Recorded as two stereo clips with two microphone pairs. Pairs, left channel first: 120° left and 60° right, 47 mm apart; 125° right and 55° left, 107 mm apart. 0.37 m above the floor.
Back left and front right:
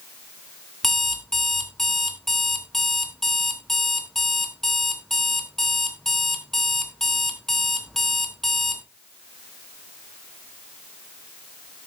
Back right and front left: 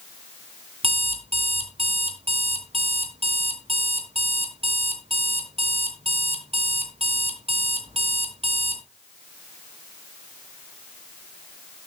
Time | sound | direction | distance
0.8 | an alarm clock | 40° left | 3 m